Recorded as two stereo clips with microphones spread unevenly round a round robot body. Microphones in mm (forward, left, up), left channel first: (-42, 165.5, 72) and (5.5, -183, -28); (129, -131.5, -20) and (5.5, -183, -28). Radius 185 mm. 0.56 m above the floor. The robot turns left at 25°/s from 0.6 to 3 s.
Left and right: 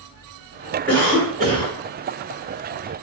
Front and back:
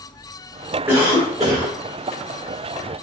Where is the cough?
140° right, 1.3 m; by 1.8 s 165° right, 1.3 m.